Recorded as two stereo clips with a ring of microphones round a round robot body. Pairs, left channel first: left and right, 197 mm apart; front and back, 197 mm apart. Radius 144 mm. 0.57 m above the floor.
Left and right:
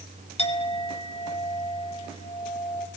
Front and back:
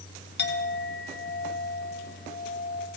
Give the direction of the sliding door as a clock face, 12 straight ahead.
No sliding door in this recording.